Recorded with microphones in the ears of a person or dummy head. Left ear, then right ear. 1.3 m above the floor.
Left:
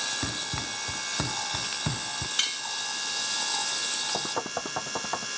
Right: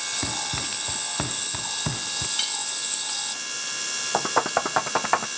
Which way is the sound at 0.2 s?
5° right (ahead or behind).